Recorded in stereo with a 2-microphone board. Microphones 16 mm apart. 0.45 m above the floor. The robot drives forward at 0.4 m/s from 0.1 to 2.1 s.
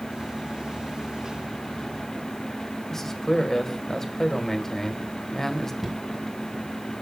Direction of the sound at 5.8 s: 5° right (ahead or behind).